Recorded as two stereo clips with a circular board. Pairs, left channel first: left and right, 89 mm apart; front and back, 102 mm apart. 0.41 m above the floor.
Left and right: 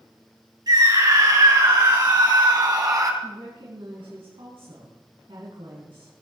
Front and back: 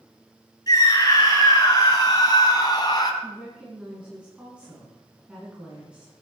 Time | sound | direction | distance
0.7 | a scream | 55° right | 5.5 m
3.2 | a woman speaking | 100° right | 4.5 m